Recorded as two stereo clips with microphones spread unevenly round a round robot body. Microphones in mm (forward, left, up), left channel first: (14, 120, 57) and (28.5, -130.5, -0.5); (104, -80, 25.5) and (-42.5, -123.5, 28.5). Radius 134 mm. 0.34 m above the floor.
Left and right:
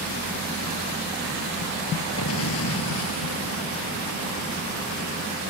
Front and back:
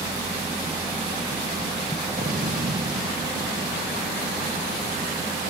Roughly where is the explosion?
Behind left.